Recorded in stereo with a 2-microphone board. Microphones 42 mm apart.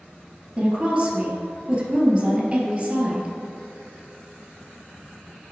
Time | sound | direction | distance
0.6 | a woman speaking | 20° right (ahead or behind) | 2 m